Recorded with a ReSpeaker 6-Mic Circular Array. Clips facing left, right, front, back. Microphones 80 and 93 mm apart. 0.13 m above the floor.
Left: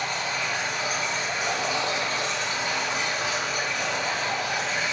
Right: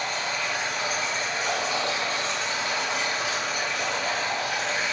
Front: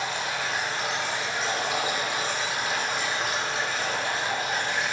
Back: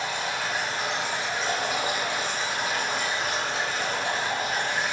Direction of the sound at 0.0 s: 40° left.